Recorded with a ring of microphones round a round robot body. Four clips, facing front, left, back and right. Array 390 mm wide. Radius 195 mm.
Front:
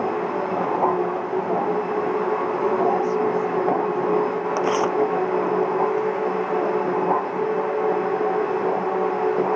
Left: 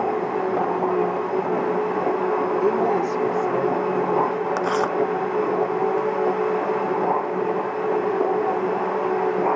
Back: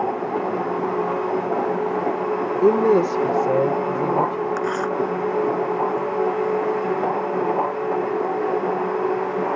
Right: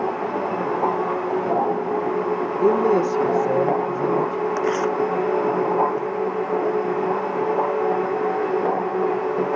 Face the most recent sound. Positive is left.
turn(degrees=35)